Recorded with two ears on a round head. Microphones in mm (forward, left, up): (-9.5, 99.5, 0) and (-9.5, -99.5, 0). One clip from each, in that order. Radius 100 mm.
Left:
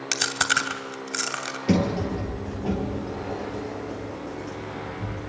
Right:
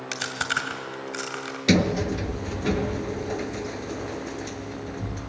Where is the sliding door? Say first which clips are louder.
Right 3 dB; 80° right, 1.4 m.